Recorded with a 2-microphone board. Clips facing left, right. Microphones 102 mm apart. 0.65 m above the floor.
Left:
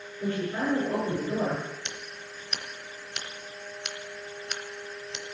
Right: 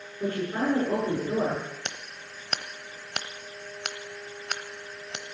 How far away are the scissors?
About 1.0 m.